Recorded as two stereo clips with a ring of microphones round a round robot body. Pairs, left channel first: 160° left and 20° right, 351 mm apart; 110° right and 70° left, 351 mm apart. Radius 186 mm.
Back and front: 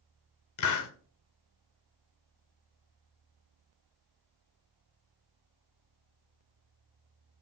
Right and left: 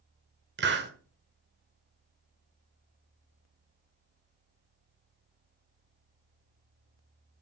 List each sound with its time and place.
0.6 s a hiss: 125° left, 1.5 m